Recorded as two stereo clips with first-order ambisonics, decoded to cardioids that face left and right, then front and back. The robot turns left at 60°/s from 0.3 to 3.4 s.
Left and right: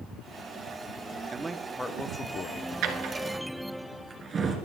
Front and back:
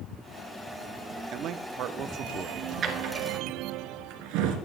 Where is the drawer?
125° right, 2 m; by 4.6 s 160° right, 2 m.